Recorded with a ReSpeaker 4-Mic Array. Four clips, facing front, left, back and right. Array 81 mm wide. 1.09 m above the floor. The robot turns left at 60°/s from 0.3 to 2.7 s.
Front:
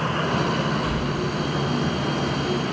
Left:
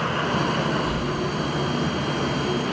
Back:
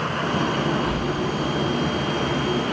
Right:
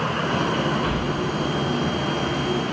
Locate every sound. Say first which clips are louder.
0.8 s breathing: right 1 dB, back 1 dB; 85° right, 2 m; by 2.7 s 165° left, 2 m